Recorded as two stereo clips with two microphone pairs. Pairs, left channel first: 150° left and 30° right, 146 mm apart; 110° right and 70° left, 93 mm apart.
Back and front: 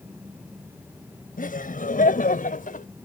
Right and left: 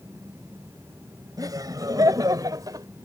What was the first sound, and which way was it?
Laughter, 125° left.